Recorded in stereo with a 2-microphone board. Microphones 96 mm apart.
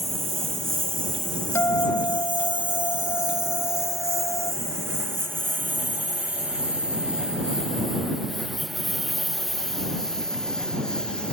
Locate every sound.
0.0 s a lawn mower: 85° right; by 11.3 s 10° left (ahead or behind)
1.6 s a guitar: 30° left (ahead or behind)